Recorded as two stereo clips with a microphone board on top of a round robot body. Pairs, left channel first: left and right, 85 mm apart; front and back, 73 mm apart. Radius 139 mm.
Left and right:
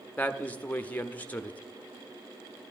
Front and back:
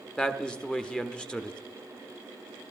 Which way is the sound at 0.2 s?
60° left.